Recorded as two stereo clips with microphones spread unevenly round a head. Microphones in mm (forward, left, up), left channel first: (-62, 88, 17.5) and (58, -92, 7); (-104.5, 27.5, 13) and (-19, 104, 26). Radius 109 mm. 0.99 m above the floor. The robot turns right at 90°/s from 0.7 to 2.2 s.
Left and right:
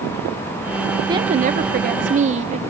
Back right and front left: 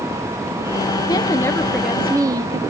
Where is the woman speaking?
120° right, 0.8 m; by 2.6 s 20° right, 0.8 m.